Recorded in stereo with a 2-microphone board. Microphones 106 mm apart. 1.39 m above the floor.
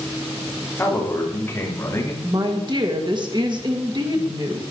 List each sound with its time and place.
0.8 s a man speaking: 20° left (ahead or behind), 4 m; by 2.1 s 25° left (ahead or behind), 3 m
2.2 s a woman speaking: 45° right (ahead or behind), 2 m